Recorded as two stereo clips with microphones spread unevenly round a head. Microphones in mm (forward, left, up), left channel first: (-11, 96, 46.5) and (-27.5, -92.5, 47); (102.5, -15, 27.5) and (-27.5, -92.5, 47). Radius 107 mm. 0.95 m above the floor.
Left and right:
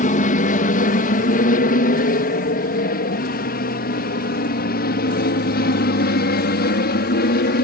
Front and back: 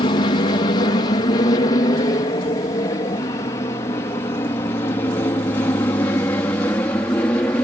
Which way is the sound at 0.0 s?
65° left.